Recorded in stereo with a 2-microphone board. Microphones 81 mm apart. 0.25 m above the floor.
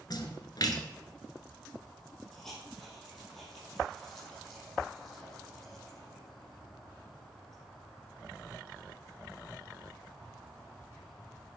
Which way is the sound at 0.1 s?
55° left (ahead or behind).